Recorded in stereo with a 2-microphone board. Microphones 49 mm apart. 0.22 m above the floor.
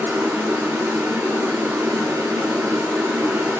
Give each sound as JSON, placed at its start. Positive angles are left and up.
{"t": 0.0, "sound": "running water", "side_deg": -75, "distance_m": 0.7}